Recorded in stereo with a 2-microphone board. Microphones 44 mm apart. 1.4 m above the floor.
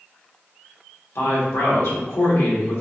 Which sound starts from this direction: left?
A woman speaking, at 1.1 s.